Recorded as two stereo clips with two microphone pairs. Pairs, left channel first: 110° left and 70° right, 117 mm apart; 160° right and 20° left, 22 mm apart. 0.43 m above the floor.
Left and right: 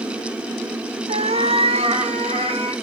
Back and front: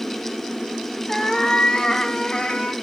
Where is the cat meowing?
90° right, 0.6 m; by 2.7 s 105° right, 1.4 m.